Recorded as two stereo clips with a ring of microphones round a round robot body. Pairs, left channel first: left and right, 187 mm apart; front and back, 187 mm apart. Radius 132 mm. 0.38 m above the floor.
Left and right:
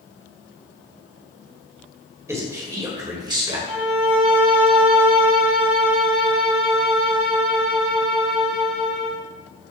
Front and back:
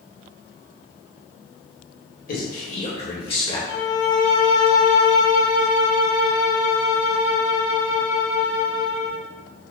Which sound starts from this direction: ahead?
A man speaking, at 2.3 s.